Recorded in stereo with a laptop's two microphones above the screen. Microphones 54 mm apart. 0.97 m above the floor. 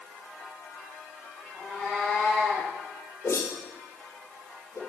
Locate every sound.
1.5 s a cat meowing: 5° left (ahead or behind), 5 m
3.2 s a whoosh: 55° left (ahead or behind), 2.5 m